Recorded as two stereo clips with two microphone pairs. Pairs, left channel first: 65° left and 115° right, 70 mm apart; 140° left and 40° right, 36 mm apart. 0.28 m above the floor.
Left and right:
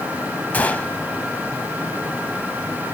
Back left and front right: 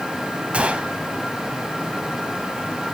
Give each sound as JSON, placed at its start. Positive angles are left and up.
{"t": 0.5, "sound": "a gunshot", "azimuth_deg": 5, "distance_m": 0.9}